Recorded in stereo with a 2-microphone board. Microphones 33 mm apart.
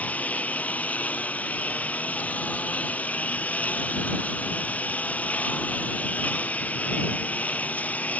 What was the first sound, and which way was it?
A lawn mower, 50° left (ahead or behind).